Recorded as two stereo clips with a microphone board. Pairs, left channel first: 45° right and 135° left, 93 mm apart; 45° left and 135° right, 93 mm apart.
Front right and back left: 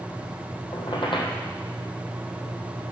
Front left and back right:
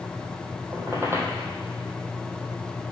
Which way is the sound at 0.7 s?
75° right.